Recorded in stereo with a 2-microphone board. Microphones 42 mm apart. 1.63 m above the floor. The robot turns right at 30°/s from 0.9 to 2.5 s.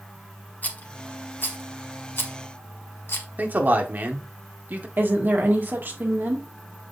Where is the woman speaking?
55° right (ahead or behind), 2 m.